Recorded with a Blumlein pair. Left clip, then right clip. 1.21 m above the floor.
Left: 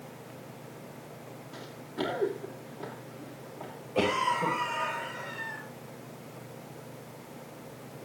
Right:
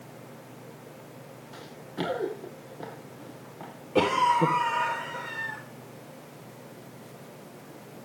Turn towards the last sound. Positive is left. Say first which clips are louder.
# right 5 dB
turn(degrees=-55)